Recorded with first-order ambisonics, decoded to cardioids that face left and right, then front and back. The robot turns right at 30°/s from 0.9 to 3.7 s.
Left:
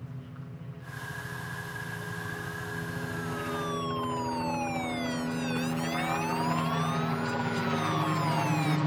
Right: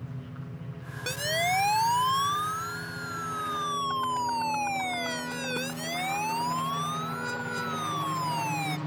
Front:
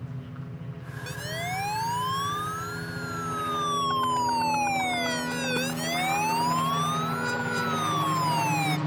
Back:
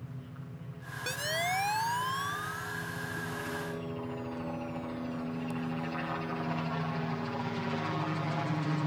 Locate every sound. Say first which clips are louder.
0.0 s a helicopter: right 3 dB, front 6 dB; 25° right; by 8.9 s 60° left
1.1 s a siren: right 13 dB, back 1 dB; 105° right; by 8.8 s 10° right